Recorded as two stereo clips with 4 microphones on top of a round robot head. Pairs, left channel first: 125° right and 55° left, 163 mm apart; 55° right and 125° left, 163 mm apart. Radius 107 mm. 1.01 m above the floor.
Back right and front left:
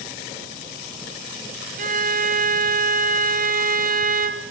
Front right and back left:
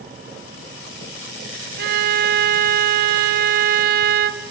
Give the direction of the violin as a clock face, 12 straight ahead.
9 o'clock.